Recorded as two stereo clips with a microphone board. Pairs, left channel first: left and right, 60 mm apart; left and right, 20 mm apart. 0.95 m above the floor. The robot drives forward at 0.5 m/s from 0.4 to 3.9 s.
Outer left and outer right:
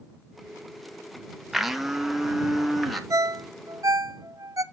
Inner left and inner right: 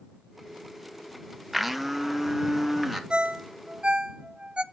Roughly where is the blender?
Centre.